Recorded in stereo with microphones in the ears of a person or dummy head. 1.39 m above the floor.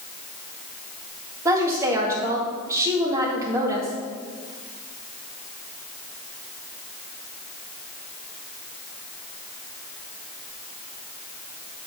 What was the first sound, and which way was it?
A woman speaking, 15° right (ahead or behind).